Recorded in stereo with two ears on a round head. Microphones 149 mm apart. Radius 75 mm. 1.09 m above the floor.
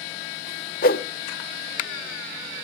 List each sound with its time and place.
0.8 s a whoosh: 55° left (ahead or behind), 1.2 m